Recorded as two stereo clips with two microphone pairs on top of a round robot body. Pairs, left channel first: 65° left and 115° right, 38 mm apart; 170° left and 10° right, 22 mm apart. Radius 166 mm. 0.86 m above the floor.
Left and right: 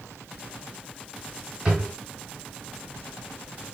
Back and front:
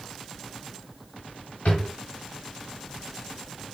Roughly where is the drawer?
Behind.